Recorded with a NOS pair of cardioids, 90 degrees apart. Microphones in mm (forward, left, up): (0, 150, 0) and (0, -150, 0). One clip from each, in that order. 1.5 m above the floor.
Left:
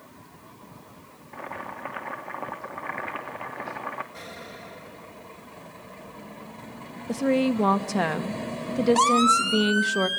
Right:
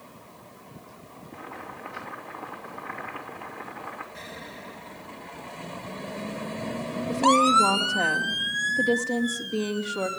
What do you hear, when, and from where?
1.3 s boiling: 70° left, 3 m
4.1 s an explosion: 20° left, 3 m
7.1 s a woman speaking: 65° left, 2 m